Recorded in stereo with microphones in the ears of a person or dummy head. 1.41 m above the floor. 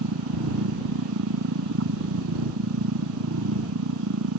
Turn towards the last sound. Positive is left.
turn(degrees=-80)